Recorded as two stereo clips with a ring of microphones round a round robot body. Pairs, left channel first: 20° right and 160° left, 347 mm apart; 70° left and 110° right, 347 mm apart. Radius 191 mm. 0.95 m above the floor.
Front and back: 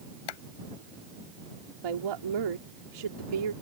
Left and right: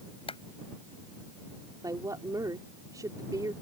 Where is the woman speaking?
165° left.